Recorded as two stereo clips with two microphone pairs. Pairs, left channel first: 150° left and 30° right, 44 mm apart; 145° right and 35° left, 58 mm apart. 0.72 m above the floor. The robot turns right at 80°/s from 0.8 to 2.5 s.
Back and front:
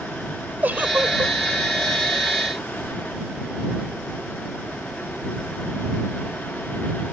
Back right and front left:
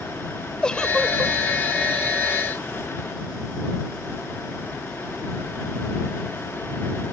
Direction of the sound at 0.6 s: 75° right.